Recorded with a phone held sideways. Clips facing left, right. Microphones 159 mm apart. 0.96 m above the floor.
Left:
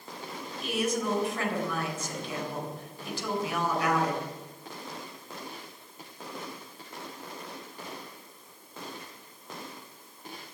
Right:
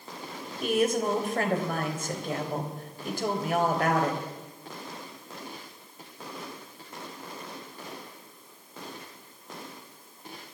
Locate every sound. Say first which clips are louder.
0.6 s a woman speaking: right 5 dB; 55° right (ahead or behind), 4 m